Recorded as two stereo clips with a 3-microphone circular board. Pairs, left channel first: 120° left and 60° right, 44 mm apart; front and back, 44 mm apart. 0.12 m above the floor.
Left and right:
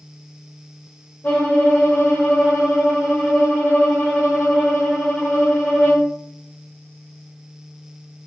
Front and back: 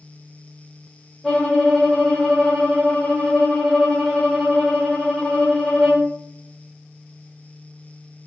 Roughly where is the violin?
Left.